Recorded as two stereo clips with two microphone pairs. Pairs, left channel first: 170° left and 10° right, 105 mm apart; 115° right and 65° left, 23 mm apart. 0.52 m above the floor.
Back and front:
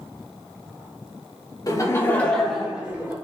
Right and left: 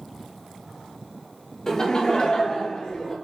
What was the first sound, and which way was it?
Laughter, 165° right.